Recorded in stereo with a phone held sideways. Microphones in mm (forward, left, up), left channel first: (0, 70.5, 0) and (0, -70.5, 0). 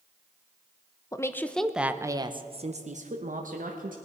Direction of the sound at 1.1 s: 25° left (ahead or behind).